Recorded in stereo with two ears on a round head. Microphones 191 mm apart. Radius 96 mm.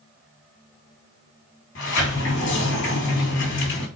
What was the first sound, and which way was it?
A sliding door, 70° left (ahead or behind).